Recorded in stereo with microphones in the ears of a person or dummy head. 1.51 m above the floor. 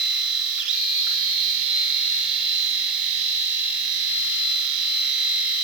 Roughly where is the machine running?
Centre.